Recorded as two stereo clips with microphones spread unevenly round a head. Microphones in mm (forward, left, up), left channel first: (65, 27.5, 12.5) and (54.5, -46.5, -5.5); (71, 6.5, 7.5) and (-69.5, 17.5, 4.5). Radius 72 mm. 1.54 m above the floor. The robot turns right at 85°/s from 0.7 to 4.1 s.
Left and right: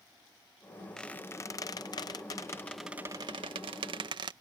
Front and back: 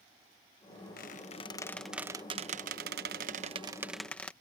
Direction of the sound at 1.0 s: 10° left.